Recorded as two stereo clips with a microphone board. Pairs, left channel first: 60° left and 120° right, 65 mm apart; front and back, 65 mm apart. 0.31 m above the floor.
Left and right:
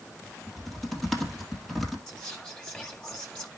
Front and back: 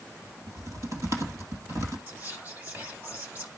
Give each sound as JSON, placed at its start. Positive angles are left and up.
{"t": 0.5, "sound": "typing on a keyboard", "azimuth_deg": 145, "distance_m": 2.0}
{"t": 2.1, "sound": "whispering", "azimuth_deg": 130, "distance_m": 1.7}